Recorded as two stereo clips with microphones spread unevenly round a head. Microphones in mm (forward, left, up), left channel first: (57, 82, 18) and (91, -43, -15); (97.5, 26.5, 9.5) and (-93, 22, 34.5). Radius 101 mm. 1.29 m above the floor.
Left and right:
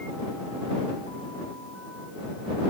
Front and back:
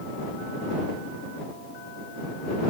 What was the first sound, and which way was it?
Only background noise.